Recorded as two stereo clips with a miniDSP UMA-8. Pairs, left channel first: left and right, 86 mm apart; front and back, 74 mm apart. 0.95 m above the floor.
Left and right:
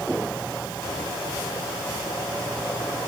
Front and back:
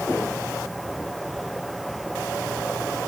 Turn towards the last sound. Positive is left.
No sound to turn to.